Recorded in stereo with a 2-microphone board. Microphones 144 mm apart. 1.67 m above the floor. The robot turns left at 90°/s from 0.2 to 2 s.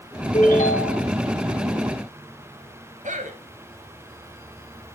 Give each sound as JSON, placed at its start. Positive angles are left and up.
{"t": 0.3, "sound": "a ringtone", "azimuth_deg": 130, "distance_m": 2.5}
{"t": 3.0, "sound": "a man speaking", "side_deg": -60, "distance_m": 2.0}